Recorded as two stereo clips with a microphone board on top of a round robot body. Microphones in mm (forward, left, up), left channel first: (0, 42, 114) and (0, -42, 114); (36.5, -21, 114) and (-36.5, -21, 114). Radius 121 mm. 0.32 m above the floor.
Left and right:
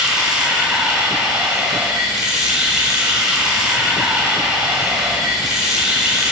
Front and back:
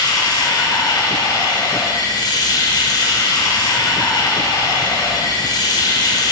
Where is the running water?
10° right, 2.5 m.